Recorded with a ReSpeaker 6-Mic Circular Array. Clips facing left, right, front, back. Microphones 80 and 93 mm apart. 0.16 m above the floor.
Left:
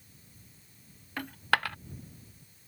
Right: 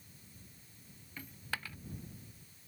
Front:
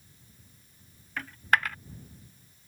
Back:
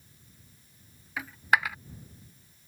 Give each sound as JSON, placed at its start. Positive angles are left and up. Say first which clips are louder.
{"t": 1.2, "sound": "a dropped coin", "louder": "left 14 dB, back 1 dB", "azimuth_deg": 100}